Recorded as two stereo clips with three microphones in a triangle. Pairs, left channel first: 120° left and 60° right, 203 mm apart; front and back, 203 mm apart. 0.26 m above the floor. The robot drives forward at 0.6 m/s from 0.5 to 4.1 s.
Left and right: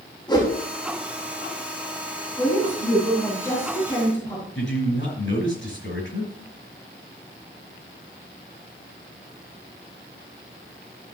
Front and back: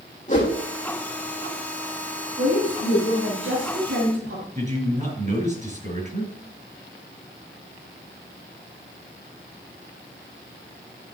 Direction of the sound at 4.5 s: 130° left.